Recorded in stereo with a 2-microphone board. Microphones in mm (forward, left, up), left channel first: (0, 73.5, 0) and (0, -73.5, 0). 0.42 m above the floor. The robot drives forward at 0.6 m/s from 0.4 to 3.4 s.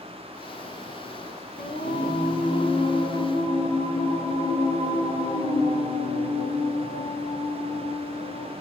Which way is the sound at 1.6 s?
80° left.